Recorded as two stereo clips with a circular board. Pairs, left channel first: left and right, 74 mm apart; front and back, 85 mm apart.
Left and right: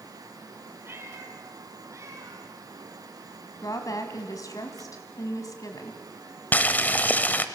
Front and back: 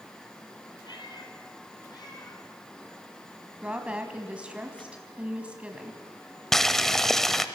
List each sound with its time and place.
0.8 s a cat meowing: 30° right, 2 m; by 2.5 s 45° right, 3.5 m
3.6 s a woman speaking: 105° left, 2.0 m
6.5 s boiling: 80° left, 1.0 m